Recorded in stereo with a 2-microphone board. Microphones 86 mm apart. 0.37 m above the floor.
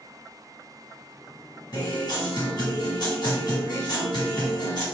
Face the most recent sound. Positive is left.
turn(degrees=60)  # may be behind; listen again after turning